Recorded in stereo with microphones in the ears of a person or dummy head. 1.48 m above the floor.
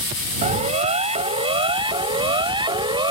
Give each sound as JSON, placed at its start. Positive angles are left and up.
{"t": 0.4, "sound": "a siren", "side_deg": -35}